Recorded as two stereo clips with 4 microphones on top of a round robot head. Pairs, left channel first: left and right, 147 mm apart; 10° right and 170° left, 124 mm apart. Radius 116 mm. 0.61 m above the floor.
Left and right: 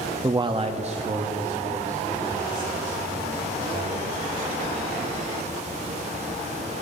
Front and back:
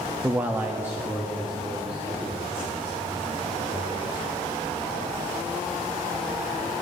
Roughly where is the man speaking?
Behind right.